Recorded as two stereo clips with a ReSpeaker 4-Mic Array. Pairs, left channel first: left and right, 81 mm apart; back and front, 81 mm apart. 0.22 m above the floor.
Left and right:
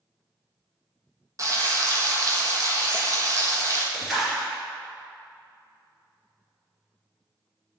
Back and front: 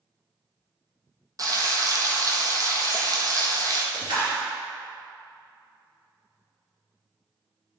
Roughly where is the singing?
I don't hear singing.